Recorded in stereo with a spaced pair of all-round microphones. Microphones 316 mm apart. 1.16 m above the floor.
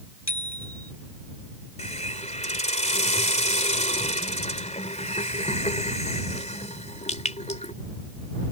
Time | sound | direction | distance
0.3 | a bicycle bell | 55° left (ahead or behind) | ?
1.8 | a hiss | 20° left (ahead or behind) | ?